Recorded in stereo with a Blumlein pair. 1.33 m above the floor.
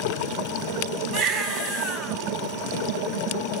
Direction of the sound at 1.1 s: 35° right.